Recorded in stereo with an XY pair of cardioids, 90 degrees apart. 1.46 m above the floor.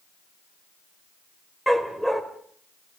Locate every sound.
1.7 s a dog barking: straight ahead, 3 m